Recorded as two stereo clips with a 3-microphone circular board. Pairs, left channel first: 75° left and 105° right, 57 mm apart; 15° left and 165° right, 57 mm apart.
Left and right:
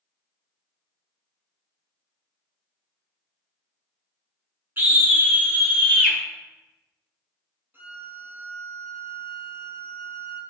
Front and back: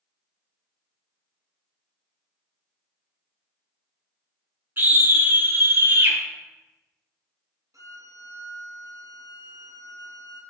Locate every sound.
4.8 s a scream: 135° right, 2 m; by 6.2 s straight behind, 2.5 m
7.7 s a violin: 155° right, 1.4 m